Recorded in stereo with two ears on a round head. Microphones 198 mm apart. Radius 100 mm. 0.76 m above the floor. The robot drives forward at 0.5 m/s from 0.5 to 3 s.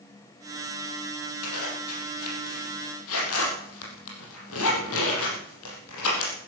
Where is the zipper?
80° left, 5 m; by 6.3 s 75° left (ahead or behind), 5.5 m.